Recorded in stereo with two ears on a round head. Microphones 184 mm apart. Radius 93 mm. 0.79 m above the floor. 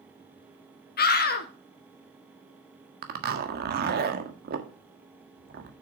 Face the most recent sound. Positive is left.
turn(degrees=-45)  # may be behind; listen again after turning